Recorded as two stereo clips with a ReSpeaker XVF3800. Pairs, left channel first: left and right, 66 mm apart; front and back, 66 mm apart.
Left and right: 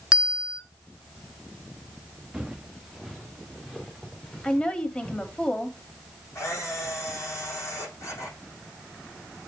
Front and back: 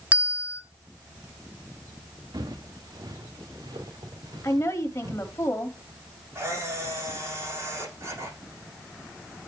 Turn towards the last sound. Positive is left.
turn(degrees=135)